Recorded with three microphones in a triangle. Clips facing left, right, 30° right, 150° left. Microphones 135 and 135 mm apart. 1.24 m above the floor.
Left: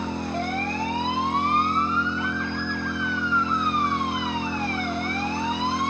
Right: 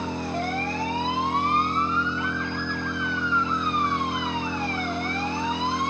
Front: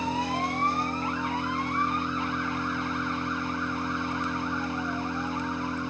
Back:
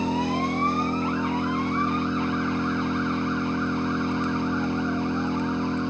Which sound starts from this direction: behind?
An engine running, at 0.0 s.